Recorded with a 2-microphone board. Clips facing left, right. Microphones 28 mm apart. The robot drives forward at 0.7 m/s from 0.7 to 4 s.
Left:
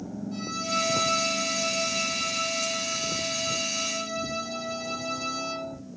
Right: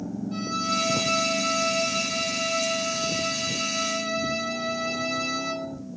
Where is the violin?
30° right (ahead or behind), 3.5 m; by 5.7 s 55° right (ahead or behind), 2 m.